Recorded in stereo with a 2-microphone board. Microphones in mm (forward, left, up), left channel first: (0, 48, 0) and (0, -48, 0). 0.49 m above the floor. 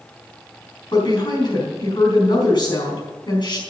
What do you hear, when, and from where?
0.9 s a woman speaking: 50° left (ahead or behind), 4.5 m